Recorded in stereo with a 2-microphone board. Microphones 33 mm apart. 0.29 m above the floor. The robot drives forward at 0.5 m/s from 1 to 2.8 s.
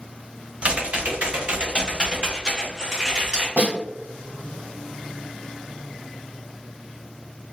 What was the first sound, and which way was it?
Typing on a keyboard, 40° right (ahead or behind).